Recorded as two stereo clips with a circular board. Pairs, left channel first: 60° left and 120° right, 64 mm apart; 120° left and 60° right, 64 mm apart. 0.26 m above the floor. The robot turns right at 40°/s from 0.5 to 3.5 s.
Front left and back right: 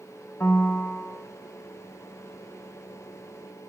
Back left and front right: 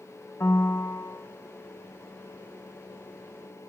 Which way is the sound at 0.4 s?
100° left.